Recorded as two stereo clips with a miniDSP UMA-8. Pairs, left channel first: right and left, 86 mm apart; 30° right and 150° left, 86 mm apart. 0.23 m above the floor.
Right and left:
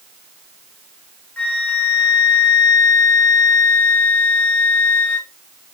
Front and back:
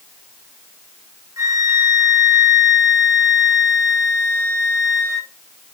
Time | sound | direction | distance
1.4 | a flute | 165° right | 0.7 m